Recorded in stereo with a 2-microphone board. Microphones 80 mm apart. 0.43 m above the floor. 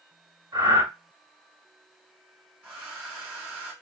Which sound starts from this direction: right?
Breathing, at 0.5 s.